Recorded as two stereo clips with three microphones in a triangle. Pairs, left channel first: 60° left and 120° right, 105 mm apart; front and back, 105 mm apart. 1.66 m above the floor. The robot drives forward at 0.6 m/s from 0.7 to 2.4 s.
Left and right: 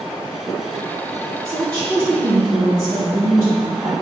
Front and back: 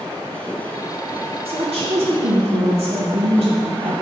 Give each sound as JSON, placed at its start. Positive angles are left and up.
{"t": 1.4, "sound": "a woman speaking", "azimuth_deg": -175, "distance_m": 1.6}